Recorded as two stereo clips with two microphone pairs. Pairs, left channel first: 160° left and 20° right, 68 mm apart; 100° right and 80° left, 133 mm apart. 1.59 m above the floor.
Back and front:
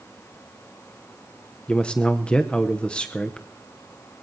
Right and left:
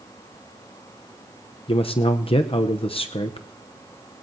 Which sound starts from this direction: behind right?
A man speaking, at 1.7 s.